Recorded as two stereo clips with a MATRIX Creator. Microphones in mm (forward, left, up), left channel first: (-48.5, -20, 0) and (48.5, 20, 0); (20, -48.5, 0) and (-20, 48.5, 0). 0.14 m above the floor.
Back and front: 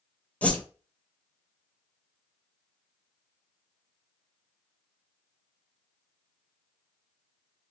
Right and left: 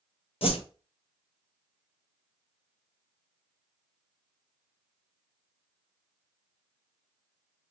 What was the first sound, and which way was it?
A whoosh, 80° right.